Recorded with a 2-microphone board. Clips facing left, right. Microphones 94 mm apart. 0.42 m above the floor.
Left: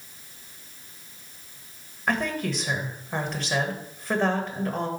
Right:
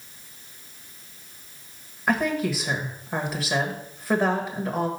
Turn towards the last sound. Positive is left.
turn(degrees=-5)  # may be behind; listen again after turning